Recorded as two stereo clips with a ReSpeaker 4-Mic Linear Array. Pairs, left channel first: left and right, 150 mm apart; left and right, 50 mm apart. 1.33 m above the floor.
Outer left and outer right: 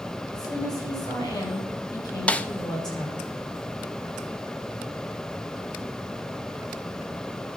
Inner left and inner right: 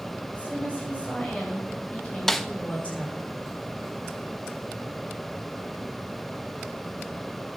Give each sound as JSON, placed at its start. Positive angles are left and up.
{"t": 0.3, "sound": "a woman speaking", "side_deg": 25, "distance_m": 8.0}
{"t": 2.3, "sound": "a snare drum", "side_deg": 10, "distance_m": 0.7}